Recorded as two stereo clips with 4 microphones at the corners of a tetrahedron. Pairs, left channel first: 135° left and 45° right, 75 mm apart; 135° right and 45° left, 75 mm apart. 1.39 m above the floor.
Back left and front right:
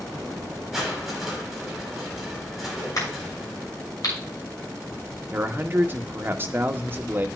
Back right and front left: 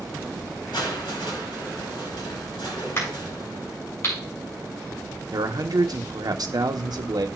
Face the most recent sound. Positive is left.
turn(degrees=15)